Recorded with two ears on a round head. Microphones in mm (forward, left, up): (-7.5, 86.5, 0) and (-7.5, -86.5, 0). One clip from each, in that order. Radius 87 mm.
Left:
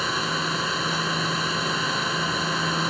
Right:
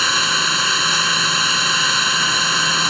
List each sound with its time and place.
0.0 s an engine running: 55° right (ahead or behind)